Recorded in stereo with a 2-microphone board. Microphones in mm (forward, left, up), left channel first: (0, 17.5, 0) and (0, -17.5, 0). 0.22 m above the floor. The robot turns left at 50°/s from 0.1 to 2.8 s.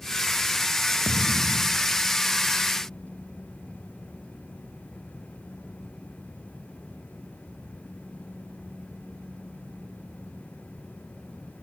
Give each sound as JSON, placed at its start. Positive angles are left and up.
{"t": 1.1, "sound": "a thud", "azimuth_deg": 85}